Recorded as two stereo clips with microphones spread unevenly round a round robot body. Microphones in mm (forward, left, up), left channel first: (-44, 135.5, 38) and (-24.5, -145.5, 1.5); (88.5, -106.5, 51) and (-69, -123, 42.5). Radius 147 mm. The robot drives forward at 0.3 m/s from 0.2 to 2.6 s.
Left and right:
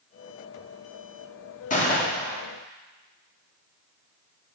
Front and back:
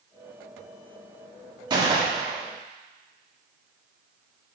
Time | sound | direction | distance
1.7 | a gunshot | 150° left | 1.5 m